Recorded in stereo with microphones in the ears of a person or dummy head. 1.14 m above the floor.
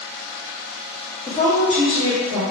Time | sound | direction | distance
1.3 | a woman speaking | 15° left (ahead or behind) | 0.8 m